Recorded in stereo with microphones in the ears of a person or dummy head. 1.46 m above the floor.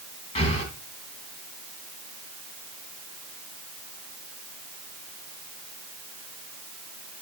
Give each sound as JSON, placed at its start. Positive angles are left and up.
{"t": 0.3, "sound": "breathing", "side_deg": 35, "distance_m": 3.0}